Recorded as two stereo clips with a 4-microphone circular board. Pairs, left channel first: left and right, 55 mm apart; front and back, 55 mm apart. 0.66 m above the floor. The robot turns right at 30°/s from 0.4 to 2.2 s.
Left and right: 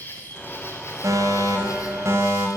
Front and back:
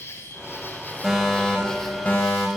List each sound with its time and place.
0.0 s an insect: 35° left, 6.5 m; by 2.6 s 90° left, 6.5 m
1.0 s a fire alarm: 90° right, 5 m; by 2.5 s 55° right, 5 m